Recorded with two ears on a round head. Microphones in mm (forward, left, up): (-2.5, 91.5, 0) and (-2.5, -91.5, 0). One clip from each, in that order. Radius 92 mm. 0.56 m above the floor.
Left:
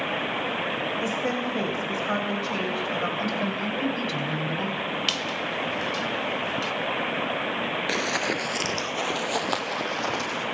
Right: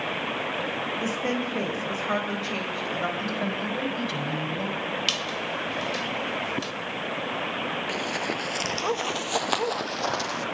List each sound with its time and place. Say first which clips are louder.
1.0 s a woman speaking: left 1 dB; 10° right (ahead or behind), 3 m
3.2 s a woman speaking: left 1 dB; centre (ahead or behind), 3.5 m
5.1 s a squeak: even; 10° right (ahead or behind), 0.8 m
7.9 s running footsteps: left 3 dB; 30° left (ahead or behind), 0.6 m; by 10.4 s 25° right (ahead or behind), 1.8 m